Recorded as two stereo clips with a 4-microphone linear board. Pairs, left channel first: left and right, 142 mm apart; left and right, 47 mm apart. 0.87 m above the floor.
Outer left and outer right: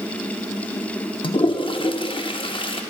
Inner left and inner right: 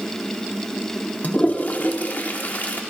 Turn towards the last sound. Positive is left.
turn(degrees=40)  # may be behind; listen again after turning